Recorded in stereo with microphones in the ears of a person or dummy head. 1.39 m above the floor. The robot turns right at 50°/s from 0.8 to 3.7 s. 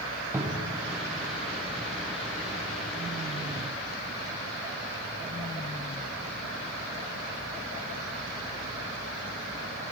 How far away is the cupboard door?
About 0.7 m.